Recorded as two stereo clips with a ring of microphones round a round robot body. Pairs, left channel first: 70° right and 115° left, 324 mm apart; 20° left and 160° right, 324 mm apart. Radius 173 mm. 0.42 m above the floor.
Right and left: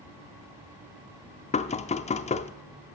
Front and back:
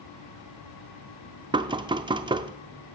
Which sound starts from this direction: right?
Knocking, at 1.5 s.